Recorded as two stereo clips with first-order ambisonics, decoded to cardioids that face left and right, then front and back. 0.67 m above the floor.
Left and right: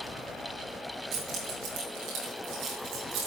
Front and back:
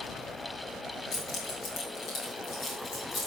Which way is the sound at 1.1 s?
45° right.